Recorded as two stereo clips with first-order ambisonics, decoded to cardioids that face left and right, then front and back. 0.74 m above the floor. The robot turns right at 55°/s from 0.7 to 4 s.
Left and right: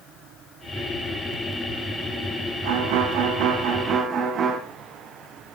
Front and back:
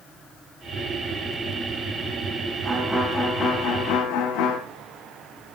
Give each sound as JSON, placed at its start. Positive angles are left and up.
{"t": 2.6, "sound": "a violin", "azimuth_deg": -105, "distance_m": 1.3}